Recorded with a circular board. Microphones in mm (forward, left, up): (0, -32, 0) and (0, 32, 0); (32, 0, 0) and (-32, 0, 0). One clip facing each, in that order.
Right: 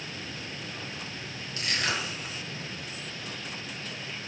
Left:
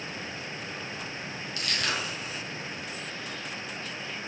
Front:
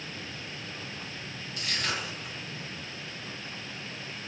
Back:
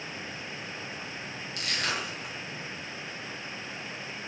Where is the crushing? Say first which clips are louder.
Right 1 dB, back 1 dB; 155° right, 1.2 m.